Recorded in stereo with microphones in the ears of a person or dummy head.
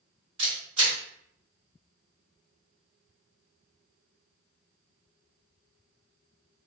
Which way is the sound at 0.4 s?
40° right (ahead or behind).